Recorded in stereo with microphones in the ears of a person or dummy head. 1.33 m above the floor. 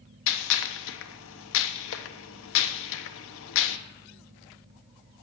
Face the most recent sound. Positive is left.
turn(degrees=70)  # may be behind; listen again after turning